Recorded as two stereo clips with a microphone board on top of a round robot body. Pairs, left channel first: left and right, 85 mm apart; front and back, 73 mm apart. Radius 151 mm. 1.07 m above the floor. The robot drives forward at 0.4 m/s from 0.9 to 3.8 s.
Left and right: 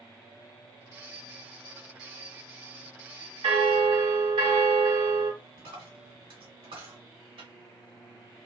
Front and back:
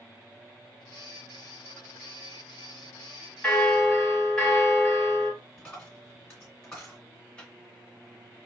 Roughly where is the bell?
Right.